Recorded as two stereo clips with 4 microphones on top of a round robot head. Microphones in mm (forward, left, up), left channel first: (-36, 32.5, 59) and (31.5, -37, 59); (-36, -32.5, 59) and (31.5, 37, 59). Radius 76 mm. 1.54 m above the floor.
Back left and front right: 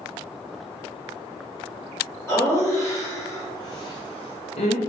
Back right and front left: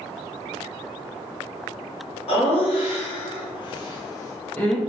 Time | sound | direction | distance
2.3 | laughter | 165° right | 1.5 m